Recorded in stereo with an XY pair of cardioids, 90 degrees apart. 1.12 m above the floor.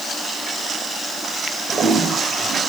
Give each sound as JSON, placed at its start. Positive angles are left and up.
{"t": 1.7, "sound": "a toilet flushing", "azimuth_deg": -50, "distance_m": 6.0}